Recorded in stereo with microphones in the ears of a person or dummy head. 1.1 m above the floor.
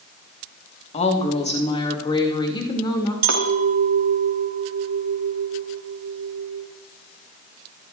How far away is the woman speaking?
About 1.7 m.